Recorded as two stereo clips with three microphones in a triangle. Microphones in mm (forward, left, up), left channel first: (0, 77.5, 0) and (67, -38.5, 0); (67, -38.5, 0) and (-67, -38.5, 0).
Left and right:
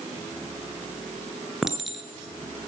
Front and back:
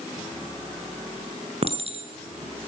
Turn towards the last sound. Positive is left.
turn(degrees=-145)